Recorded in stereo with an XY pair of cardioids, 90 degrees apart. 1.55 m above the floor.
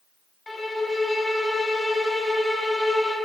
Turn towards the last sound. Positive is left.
turn(degrees=20)